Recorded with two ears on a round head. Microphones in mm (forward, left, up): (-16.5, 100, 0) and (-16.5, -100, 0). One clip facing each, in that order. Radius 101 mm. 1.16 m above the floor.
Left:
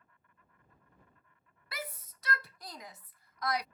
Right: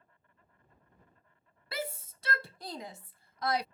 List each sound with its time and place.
0.0 s an insect: 30° right (ahead or behind)
1.7 s a shout: 25° right (ahead or behind)